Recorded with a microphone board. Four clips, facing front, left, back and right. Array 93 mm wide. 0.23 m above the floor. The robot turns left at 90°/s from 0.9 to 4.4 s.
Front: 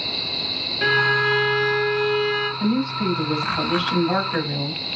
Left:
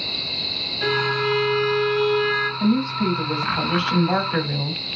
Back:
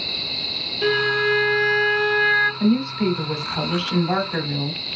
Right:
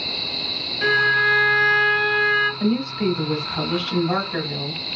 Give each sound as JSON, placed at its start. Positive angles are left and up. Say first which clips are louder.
{"t": 0.8, "sound": "a violin", "louder": "right 4 dB, front 1 dB", "azimuth_deg": -20, "distance_m": 1.8}
{"t": 2.6, "sound": "a woman speaking", "louder": "left 1 dB, back 2 dB", "azimuth_deg": -110, "distance_m": 1.2}